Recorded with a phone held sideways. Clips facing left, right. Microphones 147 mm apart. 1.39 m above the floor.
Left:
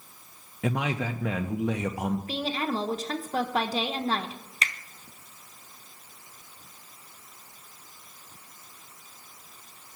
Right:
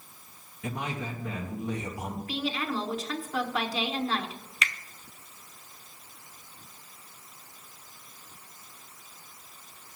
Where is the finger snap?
35° left (ahead or behind), 0.6 m.